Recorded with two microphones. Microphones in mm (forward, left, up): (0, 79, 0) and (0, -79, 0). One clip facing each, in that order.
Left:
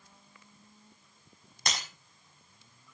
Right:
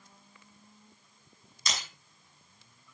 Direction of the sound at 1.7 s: 60° left (ahead or behind).